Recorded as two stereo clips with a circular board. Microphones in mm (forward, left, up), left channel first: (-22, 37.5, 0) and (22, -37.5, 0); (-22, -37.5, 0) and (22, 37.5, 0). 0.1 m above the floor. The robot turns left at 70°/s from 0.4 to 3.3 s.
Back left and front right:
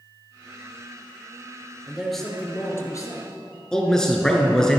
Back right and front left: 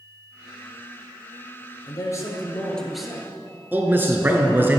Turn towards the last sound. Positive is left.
turn(degrees=50)